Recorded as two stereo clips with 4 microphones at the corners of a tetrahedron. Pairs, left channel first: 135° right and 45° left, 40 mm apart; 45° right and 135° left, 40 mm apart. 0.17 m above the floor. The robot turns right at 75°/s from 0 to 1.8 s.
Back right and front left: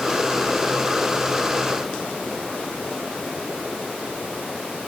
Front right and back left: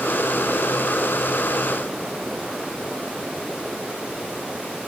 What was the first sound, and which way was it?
Only background noise.